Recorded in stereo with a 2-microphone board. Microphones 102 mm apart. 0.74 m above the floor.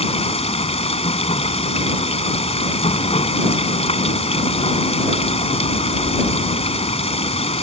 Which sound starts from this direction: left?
Running water, at 0.0 s.